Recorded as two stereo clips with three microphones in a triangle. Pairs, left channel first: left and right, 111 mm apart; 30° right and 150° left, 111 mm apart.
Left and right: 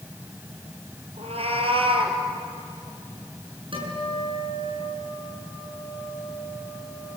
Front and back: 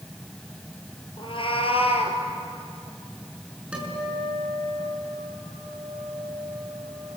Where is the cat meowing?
70° right, 2.5 m; by 2.2 s 55° right, 3 m.